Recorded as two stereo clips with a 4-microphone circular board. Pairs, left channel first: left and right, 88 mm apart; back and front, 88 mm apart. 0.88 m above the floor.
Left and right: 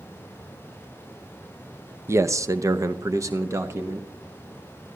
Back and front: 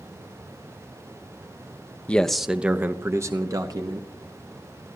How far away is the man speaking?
About 0.6 m.